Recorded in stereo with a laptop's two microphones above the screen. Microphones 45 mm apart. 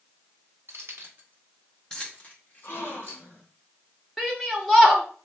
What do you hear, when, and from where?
0.7 s keys jangling: 75° right (ahead or behind), 1.1 m; by 3.2 s 55° left (ahead or behind), 1.9 m
2.6 s a gasp: 65° left (ahead or behind), 1.8 m
4.2 s a shout: centre (ahead or behind), 0.8 m